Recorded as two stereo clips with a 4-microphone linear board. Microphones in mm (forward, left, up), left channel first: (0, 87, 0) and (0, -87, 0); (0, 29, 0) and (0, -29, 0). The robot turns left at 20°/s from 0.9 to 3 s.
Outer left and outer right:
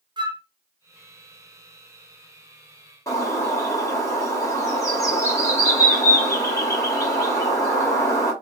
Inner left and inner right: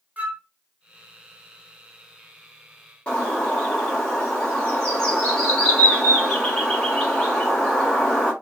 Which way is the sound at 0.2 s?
25° right (ahead or behind).